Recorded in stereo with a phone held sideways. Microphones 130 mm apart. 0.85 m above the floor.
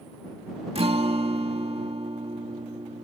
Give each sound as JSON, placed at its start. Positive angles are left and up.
{"t": 0.8, "sound": "a guitar", "side_deg": -55}